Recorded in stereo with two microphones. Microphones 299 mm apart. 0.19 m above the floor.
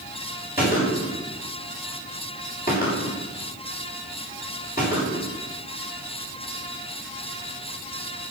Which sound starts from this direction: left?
A gunshot, at 0.6 s.